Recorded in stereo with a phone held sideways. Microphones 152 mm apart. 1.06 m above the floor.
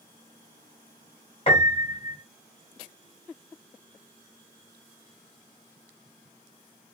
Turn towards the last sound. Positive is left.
turn(degrees=40)  # may be behind; listen again after turning